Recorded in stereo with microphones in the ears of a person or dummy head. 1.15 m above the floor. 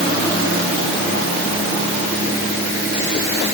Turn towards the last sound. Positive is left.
No sound to turn to.